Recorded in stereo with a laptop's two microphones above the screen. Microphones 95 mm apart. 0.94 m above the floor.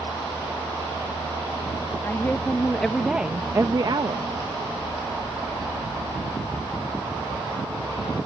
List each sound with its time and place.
2.0 s a woman speaking: 25° left (ahead or behind); by 4.3 s 60° right (ahead or behind)